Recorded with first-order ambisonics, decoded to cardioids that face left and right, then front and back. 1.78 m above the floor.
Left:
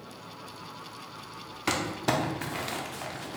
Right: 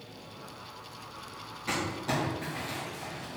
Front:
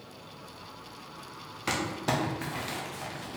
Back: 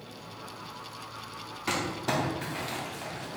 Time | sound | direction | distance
1.7 | crumpling | 75° left | 0.7 m